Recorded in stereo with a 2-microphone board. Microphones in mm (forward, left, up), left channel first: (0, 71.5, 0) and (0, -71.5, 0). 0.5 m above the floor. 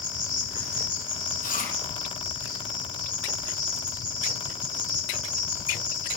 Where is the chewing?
70° left (ahead or behind), 6 m.